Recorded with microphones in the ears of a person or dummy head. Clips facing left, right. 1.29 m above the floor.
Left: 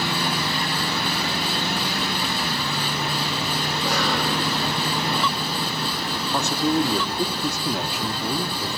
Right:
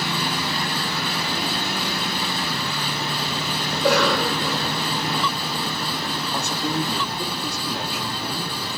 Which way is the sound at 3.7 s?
60° right (ahead or behind).